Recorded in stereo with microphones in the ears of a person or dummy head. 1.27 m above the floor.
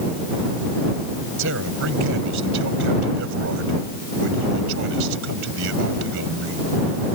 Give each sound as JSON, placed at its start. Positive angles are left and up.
{"t": 1.4, "sound": "a man speaking", "side_deg": -70}